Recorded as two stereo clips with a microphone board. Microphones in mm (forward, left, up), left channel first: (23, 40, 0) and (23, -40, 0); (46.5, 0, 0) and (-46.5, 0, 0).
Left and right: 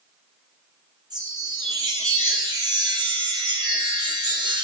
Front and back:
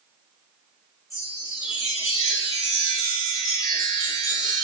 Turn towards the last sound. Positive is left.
turn(degrees=-55)